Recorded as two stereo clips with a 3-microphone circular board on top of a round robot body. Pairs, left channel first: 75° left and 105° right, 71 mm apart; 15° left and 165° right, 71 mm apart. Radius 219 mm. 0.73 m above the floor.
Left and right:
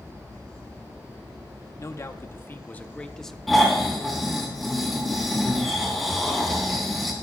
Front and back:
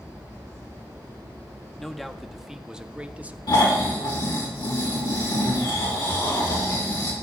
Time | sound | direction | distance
1.8 | a man speaking | 100° left | 1.4 m
3.5 | snoring | 15° right | 3 m